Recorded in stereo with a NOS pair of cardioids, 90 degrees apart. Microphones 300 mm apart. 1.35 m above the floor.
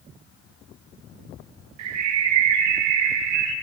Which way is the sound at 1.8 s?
65° right.